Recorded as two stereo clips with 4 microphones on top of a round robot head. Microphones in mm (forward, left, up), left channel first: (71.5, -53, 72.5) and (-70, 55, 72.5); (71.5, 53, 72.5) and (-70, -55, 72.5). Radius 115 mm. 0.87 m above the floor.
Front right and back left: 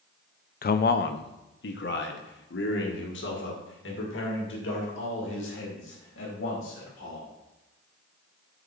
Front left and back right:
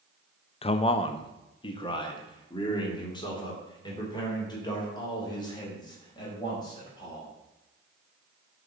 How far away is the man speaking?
About 0.6 m.